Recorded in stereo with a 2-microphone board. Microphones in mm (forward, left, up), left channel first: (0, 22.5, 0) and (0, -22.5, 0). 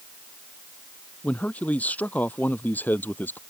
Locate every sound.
1.2 s a man speaking: 35° left (ahead or behind); by 3.4 s 45° left (ahead or behind)